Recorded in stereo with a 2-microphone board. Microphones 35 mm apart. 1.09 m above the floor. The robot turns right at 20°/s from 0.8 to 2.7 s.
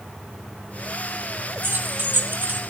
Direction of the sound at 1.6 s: 70° right (ahead or behind).